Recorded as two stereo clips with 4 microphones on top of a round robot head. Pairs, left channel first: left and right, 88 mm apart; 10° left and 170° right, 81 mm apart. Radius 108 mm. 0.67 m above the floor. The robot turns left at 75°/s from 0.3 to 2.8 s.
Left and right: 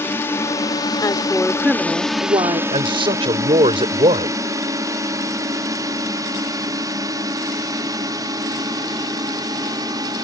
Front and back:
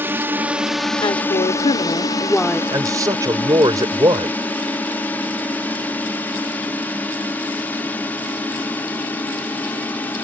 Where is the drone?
140° left; by 10.2 s 55° right.